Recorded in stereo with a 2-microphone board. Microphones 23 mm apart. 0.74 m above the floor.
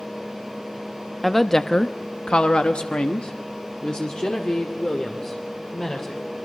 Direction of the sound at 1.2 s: 10° left (ahead or behind).